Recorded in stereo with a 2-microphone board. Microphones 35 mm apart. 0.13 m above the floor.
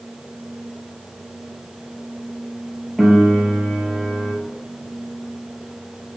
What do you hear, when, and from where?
3.0 s a piano: 10° right (ahead or behind), 0.8 m